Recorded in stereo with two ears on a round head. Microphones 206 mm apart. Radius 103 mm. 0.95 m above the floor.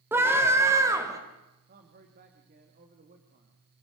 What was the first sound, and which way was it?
A scream, 10° right (ahead or behind).